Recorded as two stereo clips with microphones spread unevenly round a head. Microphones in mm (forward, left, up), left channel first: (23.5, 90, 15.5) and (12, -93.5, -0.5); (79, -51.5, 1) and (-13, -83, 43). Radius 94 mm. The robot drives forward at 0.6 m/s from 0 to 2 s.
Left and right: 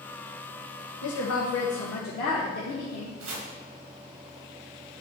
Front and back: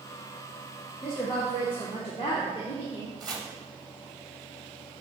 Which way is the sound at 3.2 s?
120° right.